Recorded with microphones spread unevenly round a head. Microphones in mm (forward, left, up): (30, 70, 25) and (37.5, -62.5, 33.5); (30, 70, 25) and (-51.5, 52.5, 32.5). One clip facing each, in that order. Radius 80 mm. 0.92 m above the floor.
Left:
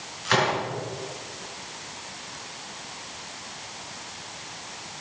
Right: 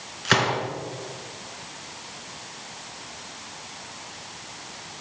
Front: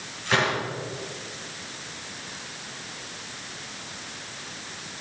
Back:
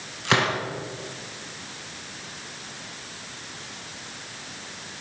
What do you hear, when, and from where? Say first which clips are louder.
0.2 s a gunshot: even, back 1 dB; 135° right, 4 m